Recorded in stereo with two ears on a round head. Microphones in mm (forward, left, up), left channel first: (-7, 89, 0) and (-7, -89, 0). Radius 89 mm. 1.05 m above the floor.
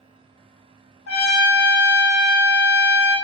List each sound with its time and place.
1.1 s a trumpet: 55° left (ahead or behind), 0.6 m